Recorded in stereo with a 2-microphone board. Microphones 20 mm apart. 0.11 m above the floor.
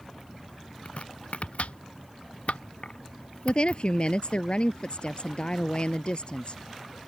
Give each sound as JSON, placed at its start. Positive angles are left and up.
{"t": 0.8, "sound": "chopping", "side_deg": 75}
{"t": 3.5, "sound": "a woman speaking", "side_deg": 50}